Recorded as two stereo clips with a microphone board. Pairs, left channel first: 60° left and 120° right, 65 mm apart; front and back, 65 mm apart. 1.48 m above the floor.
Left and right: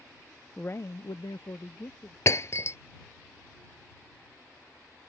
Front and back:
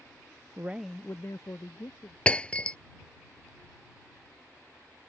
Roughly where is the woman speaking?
Behind left.